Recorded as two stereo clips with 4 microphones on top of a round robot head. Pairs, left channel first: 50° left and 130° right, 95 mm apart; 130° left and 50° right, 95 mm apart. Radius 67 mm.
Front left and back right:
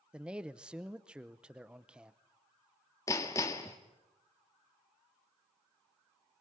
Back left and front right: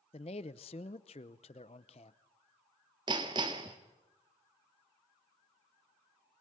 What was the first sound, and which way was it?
A man speaking, 150° left.